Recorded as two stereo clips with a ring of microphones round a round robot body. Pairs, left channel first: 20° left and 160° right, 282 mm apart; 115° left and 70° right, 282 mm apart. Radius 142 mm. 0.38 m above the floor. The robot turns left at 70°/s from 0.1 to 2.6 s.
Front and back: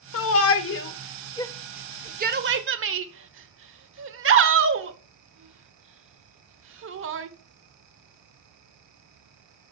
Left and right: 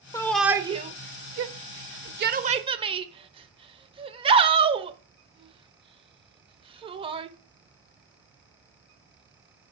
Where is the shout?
40° left, 1.1 m; by 7.3 s 135° right, 1.1 m.